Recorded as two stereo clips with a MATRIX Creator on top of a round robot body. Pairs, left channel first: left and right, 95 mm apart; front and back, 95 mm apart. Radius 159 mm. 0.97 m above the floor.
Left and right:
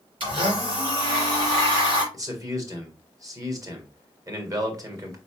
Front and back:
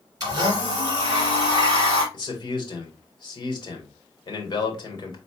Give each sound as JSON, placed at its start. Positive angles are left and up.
{"t": 0.2, "sound": "a blender", "azimuth_deg": -125, "distance_m": 2.5}
{"t": 2.1, "sound": "a man speaking", "azimuth_deg": -40, "distance_m": 2.0}